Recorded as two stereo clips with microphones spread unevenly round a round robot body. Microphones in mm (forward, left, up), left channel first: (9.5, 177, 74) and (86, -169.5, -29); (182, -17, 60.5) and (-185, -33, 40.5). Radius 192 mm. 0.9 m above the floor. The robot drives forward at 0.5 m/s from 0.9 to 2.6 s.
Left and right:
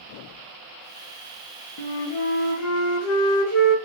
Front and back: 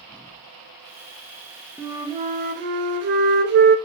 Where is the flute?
100° left, 0.7 m; by 3.8 s 140° left, 0.9 m.